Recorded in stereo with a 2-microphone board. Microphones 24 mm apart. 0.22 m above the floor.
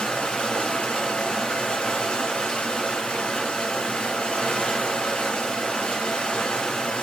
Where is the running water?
55° left (ahead or behind), 1.7 m.